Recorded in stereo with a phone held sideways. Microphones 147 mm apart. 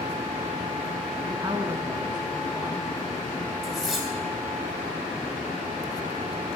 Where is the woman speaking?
25° right (ahead or behind), 0.8 m.